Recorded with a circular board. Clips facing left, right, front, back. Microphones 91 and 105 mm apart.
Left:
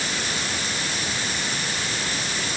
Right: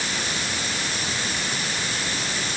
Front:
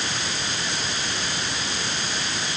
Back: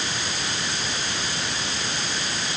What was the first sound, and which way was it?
Only background noise.